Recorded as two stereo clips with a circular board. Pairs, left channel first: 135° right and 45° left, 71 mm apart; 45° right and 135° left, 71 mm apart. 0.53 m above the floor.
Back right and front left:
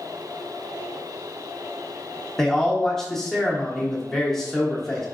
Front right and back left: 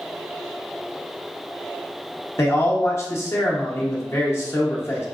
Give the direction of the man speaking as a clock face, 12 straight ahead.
2 o'clock.